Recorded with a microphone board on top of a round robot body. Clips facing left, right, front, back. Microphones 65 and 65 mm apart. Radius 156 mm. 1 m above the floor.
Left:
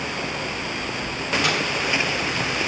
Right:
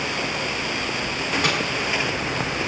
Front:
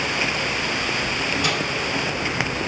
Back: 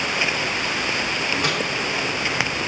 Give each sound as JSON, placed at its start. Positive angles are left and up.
{"t": 1.4, "sound": "a microwave", "azimuth_deg": -145, "distance_m": 4.0}